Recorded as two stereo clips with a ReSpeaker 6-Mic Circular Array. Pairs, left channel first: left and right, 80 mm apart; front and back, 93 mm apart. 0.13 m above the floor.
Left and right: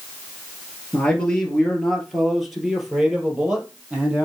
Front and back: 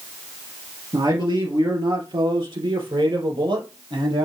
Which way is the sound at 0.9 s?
160° left.